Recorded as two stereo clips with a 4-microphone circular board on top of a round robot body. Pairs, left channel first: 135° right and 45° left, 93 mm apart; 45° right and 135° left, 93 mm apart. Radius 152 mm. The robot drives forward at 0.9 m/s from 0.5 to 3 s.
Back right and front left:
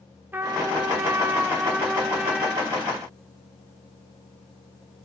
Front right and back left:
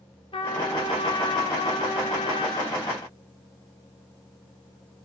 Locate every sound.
0.3 s a trumpet: 20° right, 4 m; by 2.8 s 45° right, 2.5 m